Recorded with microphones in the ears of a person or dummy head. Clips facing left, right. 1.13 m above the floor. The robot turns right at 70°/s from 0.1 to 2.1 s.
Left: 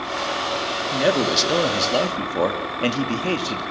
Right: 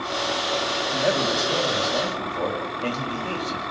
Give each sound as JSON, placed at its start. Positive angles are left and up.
{"t": 0.9, "sound": "a man speaking", "azimuth_deg": 25, "distance_m": 2.5}